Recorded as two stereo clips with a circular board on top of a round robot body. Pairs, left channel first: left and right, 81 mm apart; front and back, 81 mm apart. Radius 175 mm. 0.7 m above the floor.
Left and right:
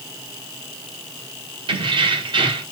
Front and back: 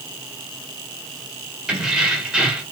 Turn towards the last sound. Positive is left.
turn(degrees=-95)